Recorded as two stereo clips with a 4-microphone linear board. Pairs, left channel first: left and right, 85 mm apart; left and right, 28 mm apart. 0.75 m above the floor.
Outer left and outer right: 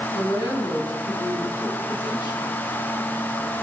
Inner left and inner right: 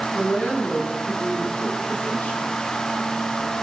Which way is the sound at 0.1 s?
55° left (ahead or behind).